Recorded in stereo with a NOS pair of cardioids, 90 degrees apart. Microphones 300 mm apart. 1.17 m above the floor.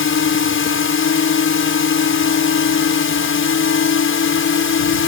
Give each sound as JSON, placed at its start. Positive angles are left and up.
{"t": 0.0, "sound": "a drone", "azimuth_deg": 45}